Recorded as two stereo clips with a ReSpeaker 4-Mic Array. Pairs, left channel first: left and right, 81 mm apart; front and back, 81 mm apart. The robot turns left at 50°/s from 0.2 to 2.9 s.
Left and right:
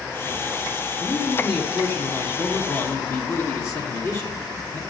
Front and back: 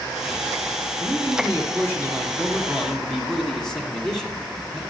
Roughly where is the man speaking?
Behind.